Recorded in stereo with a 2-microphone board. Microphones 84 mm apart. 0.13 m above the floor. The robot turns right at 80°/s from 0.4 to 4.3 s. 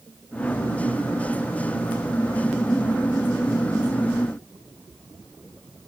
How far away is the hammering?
I don't hear hammering.